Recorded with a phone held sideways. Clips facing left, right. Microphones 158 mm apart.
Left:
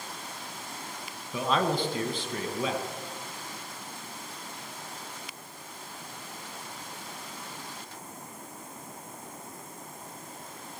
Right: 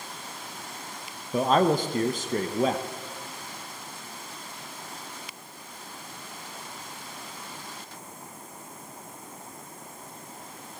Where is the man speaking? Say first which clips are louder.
Right 5 dB; 45° right (ahead or behind), 1.0 m.